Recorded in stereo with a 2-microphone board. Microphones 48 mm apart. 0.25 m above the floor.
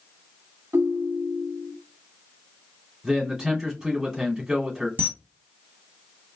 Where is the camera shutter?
30° right (ahead or behind), 1.2 m.